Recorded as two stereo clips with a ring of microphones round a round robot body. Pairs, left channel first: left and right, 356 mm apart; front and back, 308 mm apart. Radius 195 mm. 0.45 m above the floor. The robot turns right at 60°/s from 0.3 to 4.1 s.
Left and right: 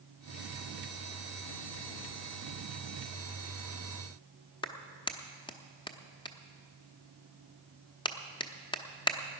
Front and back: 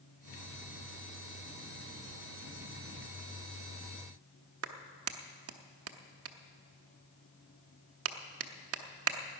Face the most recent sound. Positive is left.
turn(degrees=165)